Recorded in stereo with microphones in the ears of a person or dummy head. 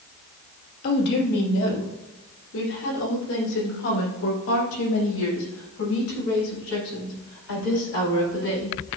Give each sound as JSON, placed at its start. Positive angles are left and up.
{"t": 0.8, "sound": "a woman speaking", "side_deg": 50, "distance_m": 2.5}